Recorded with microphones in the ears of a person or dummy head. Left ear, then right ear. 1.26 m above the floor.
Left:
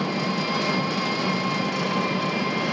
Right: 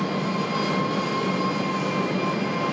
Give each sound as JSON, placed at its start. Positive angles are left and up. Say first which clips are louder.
{"t": 0.0, "sound": "an engine running", "louder": "left 1 dB", "side_deg": 40, "distance_m": 0.7}